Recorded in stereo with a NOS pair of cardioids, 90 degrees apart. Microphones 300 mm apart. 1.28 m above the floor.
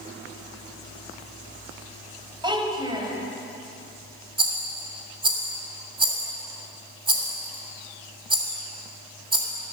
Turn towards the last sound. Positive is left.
turn(degrees=-15)